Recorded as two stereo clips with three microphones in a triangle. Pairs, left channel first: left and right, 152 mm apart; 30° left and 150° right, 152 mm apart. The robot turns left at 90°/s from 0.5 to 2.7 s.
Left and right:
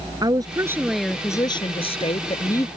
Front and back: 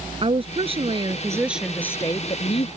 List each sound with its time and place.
0.2 s a woman speaking: 135° right; by 2.7 s 25° left